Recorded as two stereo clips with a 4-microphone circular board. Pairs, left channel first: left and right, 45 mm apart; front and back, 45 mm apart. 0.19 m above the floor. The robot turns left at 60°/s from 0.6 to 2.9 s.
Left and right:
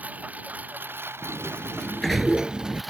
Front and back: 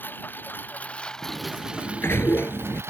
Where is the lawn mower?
40° right; by 2.9 s straight behind.